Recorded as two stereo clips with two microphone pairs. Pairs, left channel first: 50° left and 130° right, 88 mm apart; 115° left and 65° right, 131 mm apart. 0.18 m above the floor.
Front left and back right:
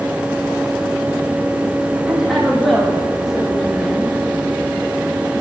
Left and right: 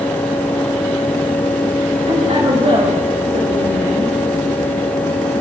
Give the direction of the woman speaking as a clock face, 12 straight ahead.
1 o'clock.